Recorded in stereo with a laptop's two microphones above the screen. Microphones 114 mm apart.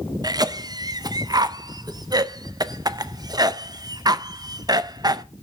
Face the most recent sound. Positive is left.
turn(degrees=-35)  # may be behind; listen again after turning